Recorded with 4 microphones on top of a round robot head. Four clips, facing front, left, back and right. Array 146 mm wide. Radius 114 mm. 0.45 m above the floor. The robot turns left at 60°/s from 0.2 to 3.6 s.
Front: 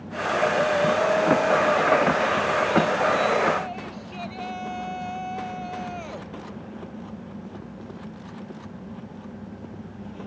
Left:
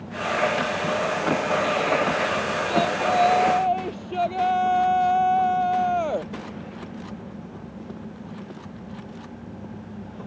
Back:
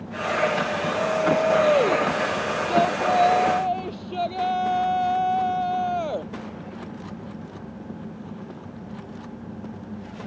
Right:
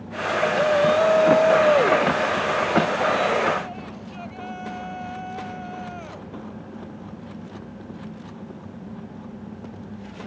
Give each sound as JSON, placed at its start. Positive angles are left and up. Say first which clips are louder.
{"t": 0.6, "sound": "a shout", "louder": "right 7 dB, front 4 dB", "azimuth_deg": -60}